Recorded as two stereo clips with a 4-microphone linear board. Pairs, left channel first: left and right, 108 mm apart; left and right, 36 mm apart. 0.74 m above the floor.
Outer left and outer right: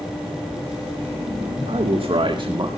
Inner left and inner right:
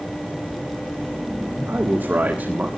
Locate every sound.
1.7 s a man speaking: 60° right (ahead or behind), 2.5 m; by 2.7 s 45° right (ahead or behind), 1.6 m